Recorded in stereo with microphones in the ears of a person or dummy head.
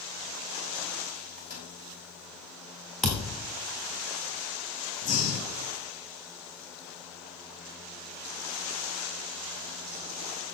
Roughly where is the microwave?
Left.